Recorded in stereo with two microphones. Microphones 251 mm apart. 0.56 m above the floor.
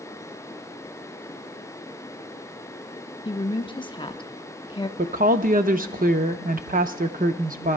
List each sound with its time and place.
3.2 s a woman speaking: 20° left (ahead or behind), 0.7 m
5.0 s a woman speaking: 35° right (ahead or behind), 0.7 m